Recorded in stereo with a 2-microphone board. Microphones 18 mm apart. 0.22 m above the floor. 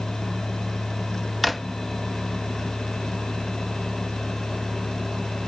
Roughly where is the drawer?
Centre.